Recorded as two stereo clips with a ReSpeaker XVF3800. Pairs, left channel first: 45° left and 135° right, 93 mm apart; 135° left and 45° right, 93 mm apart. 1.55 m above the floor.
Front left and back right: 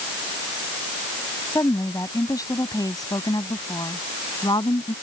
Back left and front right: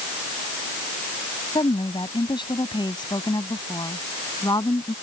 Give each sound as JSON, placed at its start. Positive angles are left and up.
{"t": 1.6, "sound": "a woman speaking", "azimuth_deg": 100}